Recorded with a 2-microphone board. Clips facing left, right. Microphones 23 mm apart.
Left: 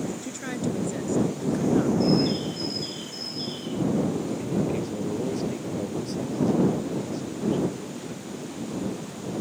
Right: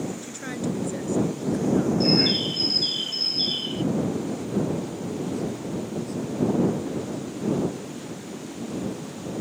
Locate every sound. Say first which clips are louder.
0.2 s a woman speaking: even; centre (ahead or behind); by 1.9 s 20° left (ahead or behind)
2.0 s a bird: right 2 dB; 50° right (ahead or behind)
4.4 s a man speaking: even; 65° left (ahead or behind)